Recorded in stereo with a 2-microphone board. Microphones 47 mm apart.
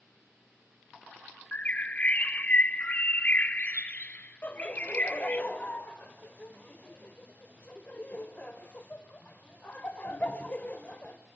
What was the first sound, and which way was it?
A bird, 30° left (ahead or behind).